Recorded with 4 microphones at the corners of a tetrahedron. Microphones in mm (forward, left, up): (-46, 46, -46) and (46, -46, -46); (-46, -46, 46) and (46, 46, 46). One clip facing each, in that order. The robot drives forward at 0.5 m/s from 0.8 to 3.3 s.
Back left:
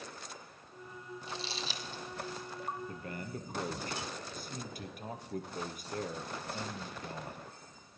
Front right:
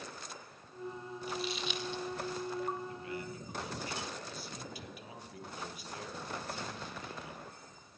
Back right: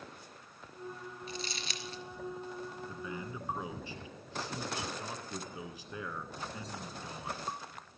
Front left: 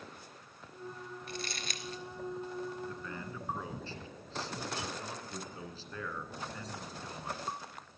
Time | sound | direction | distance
1.3 | crumpling | 75° left | 1.2 m
2.9 | a man speaking | 150° left | 1.5 m